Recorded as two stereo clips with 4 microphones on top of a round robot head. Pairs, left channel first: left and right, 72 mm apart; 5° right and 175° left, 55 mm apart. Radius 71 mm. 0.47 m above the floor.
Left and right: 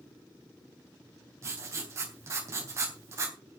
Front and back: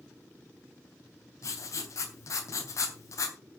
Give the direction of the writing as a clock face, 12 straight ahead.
1 o'clock.